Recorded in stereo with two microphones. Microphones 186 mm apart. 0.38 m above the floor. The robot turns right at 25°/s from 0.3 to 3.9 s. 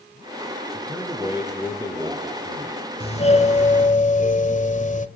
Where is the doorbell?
35° left (ahead or behind), 1.8 m; by 5.1 s 40° left (ahead or behind), 1.8 m.